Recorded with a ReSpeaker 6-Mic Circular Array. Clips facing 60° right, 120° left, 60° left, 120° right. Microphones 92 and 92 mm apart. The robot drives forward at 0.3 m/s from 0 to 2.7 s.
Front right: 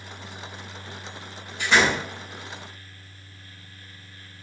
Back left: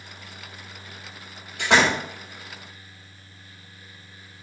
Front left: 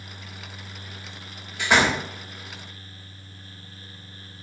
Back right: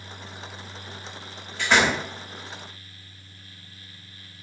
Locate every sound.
1.6 s a door slam: 140° left, 1.8 m